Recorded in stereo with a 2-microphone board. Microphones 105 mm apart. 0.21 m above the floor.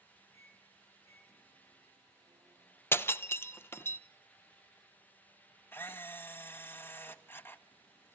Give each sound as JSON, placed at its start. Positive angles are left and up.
{"t": 0.3, "sound": "a microwave", "side_deg": -35, "distance_m": 9.0}
{"t": 2.9, "sound": "breaking glass", "side_deg": 20, "distance_m": 0.8}
{"t": 5.7, "sound": "a camera shutter", "side_deg": 20, "distance_m": 1.3}